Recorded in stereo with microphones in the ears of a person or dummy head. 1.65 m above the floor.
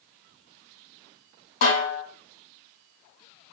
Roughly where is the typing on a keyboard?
I don't hear typing on a keyboard.